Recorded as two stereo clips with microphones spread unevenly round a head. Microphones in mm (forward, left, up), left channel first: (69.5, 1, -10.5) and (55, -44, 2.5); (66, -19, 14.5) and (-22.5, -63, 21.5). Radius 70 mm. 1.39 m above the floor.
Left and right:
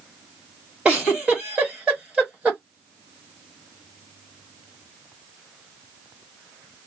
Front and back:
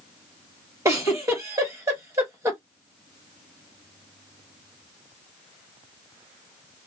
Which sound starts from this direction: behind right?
A giggle, at 0.8 s.